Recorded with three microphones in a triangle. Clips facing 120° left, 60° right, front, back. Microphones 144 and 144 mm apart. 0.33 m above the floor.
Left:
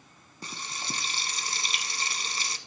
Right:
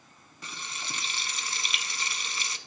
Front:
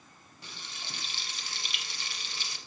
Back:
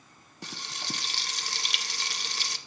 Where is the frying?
175° left, 0.7 m.